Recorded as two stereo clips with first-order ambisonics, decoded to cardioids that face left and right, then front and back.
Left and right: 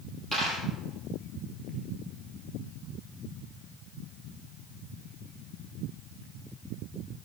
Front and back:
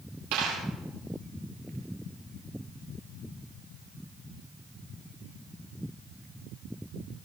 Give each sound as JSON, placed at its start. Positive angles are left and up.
{"t": 0.3, "sound": "a dropped coin", "azimuth_deg": 180, "distance_m": 6.5}